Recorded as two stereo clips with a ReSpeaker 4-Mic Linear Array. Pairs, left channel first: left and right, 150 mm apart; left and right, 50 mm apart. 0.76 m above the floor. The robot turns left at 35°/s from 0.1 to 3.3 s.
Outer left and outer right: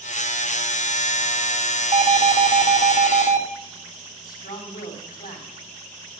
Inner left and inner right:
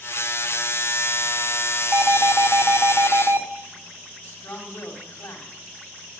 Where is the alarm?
65° right, 3 m; by 3.4 s 115° right, 3 m.